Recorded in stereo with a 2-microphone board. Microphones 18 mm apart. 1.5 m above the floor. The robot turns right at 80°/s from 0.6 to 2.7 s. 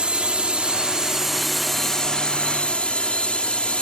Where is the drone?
75° right; by 3.8 s 90° left.